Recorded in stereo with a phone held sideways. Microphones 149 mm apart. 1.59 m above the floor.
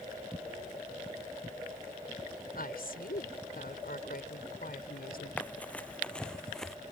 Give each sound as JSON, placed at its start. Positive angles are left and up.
{"t": 2.5, "sound": "a woman speaking", "side_deg": 85}
{"t": 5.4, "sound": "running footsteps", "side_deg": 10}